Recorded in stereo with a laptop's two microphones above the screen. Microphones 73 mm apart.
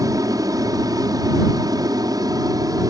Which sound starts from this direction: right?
An aircraft, at 0.0 s.